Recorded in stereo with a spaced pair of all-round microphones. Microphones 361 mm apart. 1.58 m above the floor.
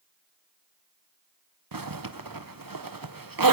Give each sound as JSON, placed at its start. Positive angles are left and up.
{"t": 1.7, "sound": "a zipper", "side_deg": -75, "distance_m": 0.9}